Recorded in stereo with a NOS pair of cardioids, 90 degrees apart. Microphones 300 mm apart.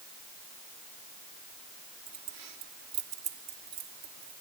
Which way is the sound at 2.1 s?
60° right.